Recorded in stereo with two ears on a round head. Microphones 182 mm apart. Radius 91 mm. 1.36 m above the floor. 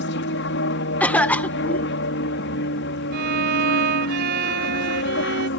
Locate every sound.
0.0 s an aircraft: 60° left (ahead or behind)
1.0 s a cough: 10° left (ahead or behind)
3.1 s a violin: 50° right (ahead or behind)